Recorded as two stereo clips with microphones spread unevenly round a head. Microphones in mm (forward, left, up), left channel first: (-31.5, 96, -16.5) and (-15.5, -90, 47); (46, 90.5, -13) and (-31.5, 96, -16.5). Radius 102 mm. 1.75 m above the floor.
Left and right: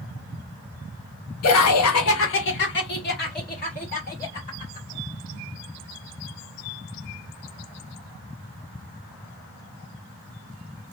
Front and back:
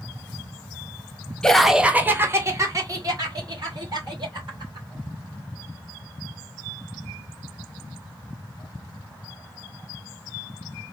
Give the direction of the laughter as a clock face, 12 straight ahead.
10 o'clock.